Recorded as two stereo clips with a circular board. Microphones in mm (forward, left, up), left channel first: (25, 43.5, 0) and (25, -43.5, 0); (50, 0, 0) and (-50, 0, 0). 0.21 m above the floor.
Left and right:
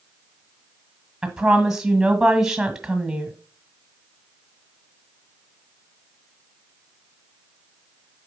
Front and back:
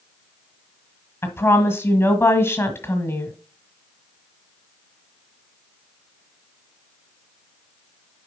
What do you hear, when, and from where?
1.2 s a woman speaking: 15° right, 1.5 m